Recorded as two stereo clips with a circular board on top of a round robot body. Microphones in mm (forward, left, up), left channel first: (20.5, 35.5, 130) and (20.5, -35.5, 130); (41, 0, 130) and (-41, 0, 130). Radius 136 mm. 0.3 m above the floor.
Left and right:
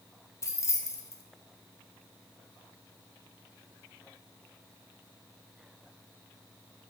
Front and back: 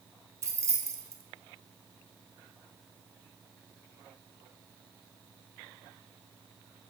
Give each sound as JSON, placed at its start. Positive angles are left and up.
{"t": 0.4, "sound": "keys jangling", "azimuth_deg": 130, "distance_m": 1.2}